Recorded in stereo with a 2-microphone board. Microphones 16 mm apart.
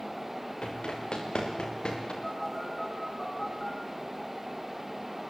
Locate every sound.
0.6 s running footsteps: 75° left (ahead or behind), 6.5 m; by 2.1 s 80° left, 8 m
2.2 s a phone buzzing: 35° left (ahead or behind), 8 m